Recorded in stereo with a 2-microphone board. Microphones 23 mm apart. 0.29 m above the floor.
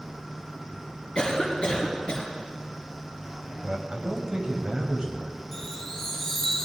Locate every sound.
1.1 s a cough: 45° left (ahead or behind), 2 m
3.6 s a man speaking: 35° right (ahead or behind), 1.5 m
5.5 s a chime: 25° left (ahead or behind), 1.6 m